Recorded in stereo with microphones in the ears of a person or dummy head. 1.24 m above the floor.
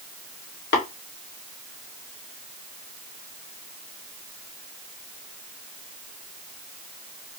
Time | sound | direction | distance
0.7 | tapping | 40° left (ahead or behind) | 2 m